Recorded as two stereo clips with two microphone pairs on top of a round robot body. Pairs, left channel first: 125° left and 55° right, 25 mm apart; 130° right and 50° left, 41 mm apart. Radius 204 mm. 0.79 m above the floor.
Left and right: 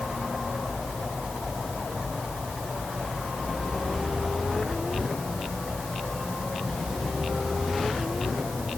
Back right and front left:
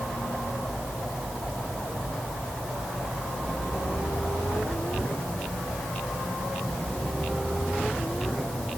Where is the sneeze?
No sneeze in this recording.